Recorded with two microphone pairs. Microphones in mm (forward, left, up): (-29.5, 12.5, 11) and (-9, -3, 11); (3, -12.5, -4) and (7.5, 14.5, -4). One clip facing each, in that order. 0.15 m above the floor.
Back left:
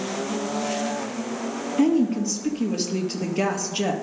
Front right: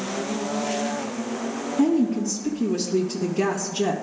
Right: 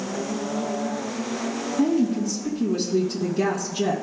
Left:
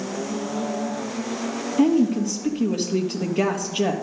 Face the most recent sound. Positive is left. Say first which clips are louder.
# back left 1 dB, left 3 dB
turn(degrees=85)